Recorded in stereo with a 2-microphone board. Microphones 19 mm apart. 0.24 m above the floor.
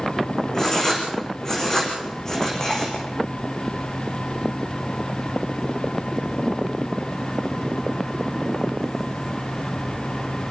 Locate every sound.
0.5 s writing: 30° left (ahead or behind), 5.5 m